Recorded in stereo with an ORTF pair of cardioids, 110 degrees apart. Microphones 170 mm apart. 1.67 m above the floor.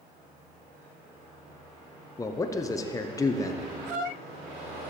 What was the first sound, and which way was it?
A man speaking, 20° left.